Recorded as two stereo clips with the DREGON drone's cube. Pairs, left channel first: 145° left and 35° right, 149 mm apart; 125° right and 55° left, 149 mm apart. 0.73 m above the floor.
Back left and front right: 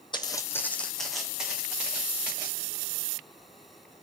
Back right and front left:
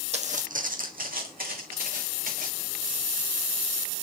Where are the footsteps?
90° left, 1.4 m; by 2.6 s 40° left, 4 m.